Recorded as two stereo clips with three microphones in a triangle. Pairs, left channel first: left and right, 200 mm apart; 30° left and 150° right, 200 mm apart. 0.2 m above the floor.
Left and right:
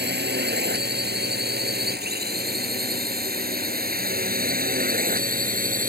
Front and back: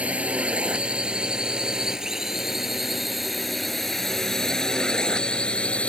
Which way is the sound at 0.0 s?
65° right.